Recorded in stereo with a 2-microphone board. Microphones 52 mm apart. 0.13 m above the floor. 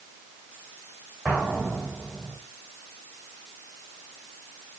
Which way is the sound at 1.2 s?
Centre (ahead or behind).